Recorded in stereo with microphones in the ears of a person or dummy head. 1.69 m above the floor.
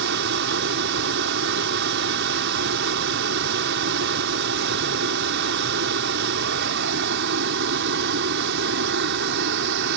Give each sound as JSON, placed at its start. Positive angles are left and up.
{"t": 0.0, "sound": "running water", "side_deg": -70}